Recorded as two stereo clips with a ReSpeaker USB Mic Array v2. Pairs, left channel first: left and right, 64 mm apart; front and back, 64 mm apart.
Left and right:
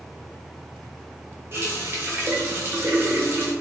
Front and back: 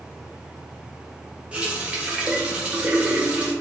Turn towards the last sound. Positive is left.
turn(degrees=-115)